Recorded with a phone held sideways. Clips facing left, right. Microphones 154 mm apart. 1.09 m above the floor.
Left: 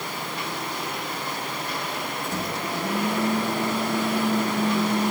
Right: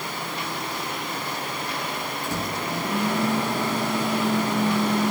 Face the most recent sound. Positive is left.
turn(degrees=-85)